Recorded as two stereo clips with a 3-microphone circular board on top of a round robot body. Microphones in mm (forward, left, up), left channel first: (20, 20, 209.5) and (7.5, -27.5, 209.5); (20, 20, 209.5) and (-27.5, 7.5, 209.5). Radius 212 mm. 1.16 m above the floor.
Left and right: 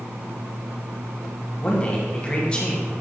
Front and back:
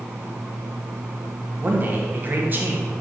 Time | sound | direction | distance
1.6 | a man speaking | 145° left | 1.8 m